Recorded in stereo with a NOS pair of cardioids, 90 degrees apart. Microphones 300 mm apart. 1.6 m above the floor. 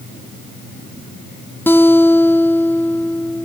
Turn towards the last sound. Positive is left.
turn(degrees=5)